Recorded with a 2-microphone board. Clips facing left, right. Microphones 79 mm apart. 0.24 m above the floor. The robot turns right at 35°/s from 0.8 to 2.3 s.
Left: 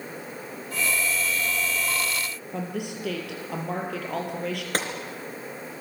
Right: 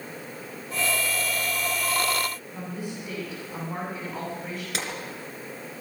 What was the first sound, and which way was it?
A woman speaking, 75° left (ahead or behind).